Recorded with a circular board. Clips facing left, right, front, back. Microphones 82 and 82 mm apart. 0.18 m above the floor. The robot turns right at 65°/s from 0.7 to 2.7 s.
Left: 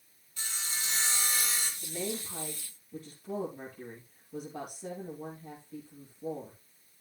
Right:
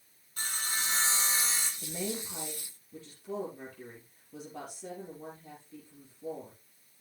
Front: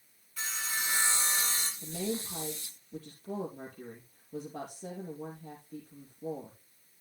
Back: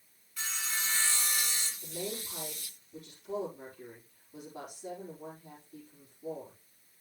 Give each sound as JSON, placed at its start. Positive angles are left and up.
{"t": 0.4, "sound": "sawing", "azimuth_deg": -90, "distance_m": 2.0}
{"t": 1.8, "sound": "a woman speaking", "azimuth_deg": -50, "distance_m": 4.0}